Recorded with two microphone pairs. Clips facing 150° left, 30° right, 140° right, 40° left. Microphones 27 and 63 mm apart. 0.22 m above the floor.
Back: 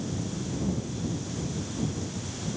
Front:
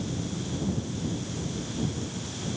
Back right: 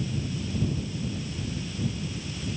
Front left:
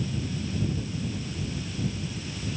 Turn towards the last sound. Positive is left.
No sound to turn to.